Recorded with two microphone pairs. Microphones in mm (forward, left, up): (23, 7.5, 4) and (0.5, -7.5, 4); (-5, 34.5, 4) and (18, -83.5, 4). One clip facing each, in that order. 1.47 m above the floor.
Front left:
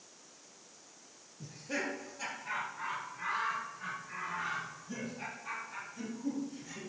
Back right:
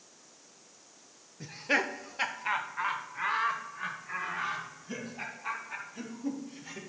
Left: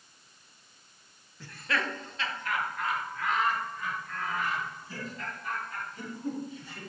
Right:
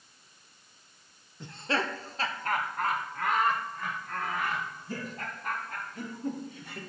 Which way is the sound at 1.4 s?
140° right.